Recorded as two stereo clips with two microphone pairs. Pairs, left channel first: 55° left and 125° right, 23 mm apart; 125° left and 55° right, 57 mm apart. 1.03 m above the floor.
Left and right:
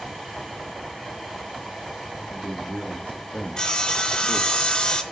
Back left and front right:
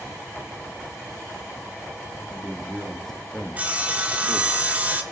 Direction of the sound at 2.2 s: 30° left.